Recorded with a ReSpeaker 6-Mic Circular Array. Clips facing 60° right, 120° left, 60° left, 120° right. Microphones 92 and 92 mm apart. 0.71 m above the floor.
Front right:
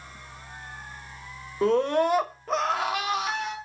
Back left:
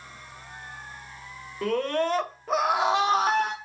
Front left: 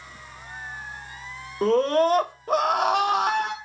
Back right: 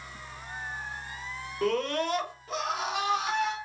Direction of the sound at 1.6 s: Straight ahead.